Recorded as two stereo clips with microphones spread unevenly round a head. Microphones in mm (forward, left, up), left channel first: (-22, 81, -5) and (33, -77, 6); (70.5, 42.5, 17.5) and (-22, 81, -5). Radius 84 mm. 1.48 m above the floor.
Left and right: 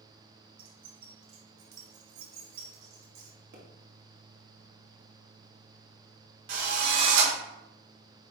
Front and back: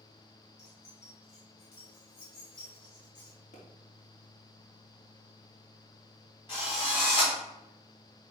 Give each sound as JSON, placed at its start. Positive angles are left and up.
{"t": 0.6, "sound": "keys jangling", "azimuth_deg": -65, "distance_m": 1.3}
{"t": 3.5, "sound": "a pop", "azimuth_deg": -45, "distance_m": 2.5}
{"t": 6.5, "sound": "a drill", "azimuth_deg": -90, "distance_m": 3.0}